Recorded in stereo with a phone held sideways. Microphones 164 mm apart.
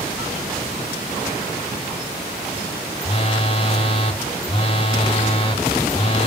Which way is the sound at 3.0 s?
35° left (ahead or behind).